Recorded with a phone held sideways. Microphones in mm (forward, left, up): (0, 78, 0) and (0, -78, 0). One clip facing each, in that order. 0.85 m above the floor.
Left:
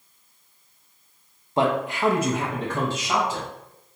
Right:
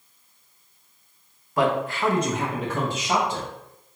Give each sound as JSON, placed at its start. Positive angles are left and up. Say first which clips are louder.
{"t": 1.6, "sound": "a man speaking", "louder": "even", "side_deg": 25, "distance_m": 0.6}